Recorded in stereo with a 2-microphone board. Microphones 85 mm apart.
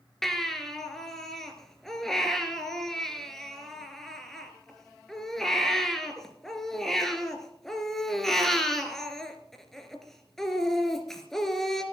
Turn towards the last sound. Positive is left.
turn(degrees=5)  # may be behind; listen again after turning